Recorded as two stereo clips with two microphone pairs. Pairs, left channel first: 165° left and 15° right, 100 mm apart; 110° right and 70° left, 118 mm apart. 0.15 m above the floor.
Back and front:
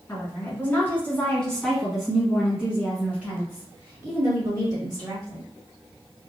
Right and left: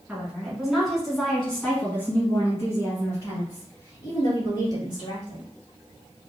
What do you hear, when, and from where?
0.1 s a woman speaking: 135° left, 1.5 m; by 5.5 s 65° right, 2.5 m